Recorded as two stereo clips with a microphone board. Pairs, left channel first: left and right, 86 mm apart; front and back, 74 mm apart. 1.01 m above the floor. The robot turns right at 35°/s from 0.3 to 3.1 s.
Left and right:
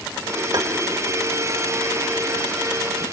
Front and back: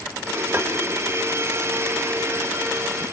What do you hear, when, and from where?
0.5 s tapping: 120° right, 1.4 m; by 0.7 s 115° right, 1.4 m